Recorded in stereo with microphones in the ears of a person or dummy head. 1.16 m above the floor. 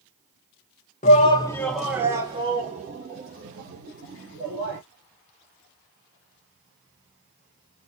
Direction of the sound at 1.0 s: 35° left (ahead or behind).